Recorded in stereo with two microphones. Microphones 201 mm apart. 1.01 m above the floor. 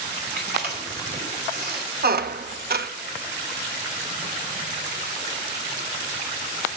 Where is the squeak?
55° right (ahead or behind), 0.5 m.